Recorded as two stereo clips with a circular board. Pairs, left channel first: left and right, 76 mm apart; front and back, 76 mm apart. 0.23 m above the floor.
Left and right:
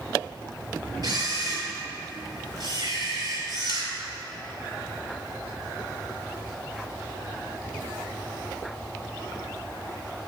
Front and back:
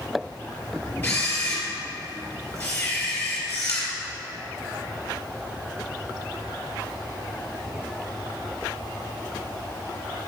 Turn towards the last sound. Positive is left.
turn(degrees=-65)